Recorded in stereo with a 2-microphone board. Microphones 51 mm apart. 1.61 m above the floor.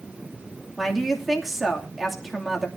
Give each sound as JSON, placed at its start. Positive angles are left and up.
{"t": 0.8, "sound": "a woman speaking", "side_deg": -5, "distance_m": 2.5}